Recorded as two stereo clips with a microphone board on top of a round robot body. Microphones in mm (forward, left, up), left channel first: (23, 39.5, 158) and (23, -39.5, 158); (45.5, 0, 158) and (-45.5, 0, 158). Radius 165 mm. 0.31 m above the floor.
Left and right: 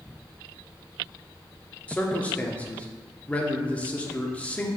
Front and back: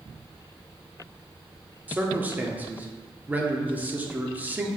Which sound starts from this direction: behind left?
A man speaking, at 1.9 s.